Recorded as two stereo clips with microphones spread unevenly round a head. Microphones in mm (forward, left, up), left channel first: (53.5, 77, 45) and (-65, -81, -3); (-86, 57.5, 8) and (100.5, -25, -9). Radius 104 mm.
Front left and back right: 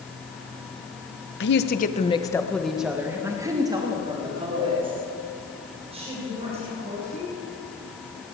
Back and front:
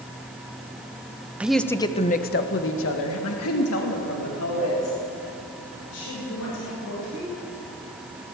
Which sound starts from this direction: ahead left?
A woman speaking, at 1.4 s.